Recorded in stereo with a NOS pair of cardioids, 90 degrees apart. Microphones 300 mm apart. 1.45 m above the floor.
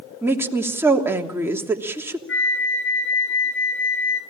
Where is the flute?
45° left, 9 m.